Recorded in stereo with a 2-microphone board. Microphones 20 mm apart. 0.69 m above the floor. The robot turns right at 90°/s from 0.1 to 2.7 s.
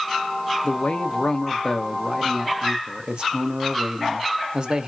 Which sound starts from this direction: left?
A man speaking, at 0.6 s.